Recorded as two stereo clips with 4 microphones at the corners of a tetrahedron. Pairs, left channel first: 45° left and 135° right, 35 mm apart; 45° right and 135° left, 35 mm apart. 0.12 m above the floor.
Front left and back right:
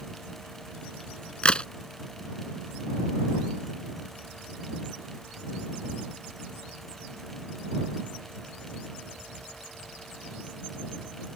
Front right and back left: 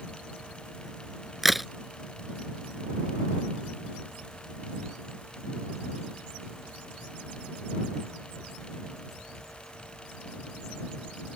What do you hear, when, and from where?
1.4 s a crack: 50° left